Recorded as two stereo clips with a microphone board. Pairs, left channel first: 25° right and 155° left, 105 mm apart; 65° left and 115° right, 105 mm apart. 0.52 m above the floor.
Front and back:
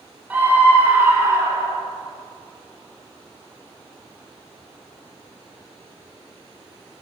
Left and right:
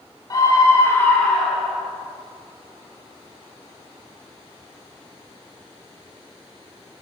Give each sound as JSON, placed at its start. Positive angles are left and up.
{"t": 0.3, "sound": "a scream", "azimuth_deg": 90, "distance_m": 1.6}